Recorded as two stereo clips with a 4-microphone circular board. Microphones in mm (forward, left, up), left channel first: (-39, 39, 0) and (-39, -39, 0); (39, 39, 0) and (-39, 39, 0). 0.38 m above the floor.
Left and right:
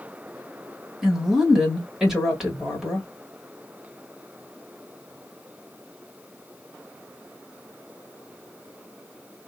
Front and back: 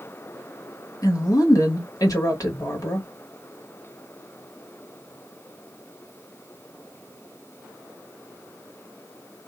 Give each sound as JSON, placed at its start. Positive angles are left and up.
{"t": 1.0, "sound": "a woman speaking", "azimuth_deg": -10, "distance_m": 1.4}